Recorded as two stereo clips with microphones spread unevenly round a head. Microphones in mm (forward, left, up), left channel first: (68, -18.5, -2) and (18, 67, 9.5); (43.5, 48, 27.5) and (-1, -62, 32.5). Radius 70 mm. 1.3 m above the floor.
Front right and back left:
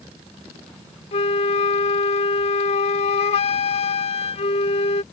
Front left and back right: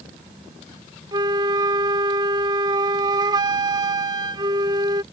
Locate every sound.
1.1 s a flute: 65° right